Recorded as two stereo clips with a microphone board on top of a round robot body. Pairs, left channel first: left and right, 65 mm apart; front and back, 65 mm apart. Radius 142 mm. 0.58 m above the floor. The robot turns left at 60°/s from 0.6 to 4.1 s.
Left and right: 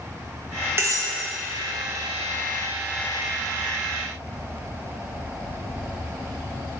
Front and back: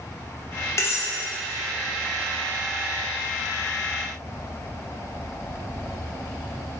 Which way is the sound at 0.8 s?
40° right.